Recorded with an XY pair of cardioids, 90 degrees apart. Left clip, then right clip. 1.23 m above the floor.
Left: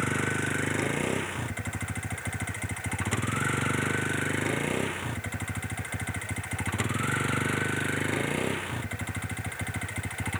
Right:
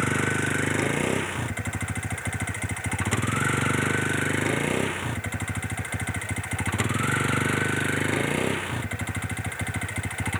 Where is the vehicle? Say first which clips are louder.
Right 4 dB; 30° right.